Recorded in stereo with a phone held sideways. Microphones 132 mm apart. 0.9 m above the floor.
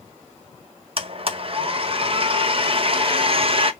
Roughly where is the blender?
Right.